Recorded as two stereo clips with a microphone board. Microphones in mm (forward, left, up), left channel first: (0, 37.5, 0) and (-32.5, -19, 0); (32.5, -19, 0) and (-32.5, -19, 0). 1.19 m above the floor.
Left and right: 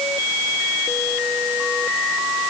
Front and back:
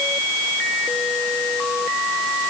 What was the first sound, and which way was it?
Only background noise.